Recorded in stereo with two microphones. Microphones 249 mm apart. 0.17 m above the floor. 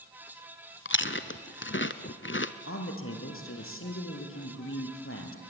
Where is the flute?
I don't hear a flute.